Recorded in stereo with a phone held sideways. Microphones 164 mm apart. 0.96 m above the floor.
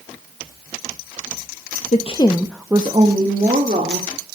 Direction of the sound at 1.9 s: 50° left (ahead or behind).